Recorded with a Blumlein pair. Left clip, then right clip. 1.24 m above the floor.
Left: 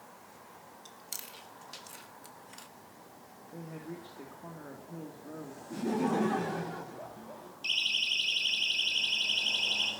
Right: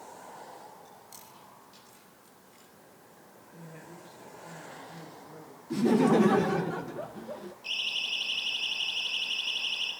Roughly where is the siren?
Ahead left.